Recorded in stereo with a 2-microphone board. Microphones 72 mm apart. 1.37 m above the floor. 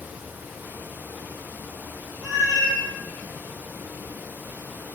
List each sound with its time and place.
2.2 s a cat meowing: 15° right (ahead or behind), 3 m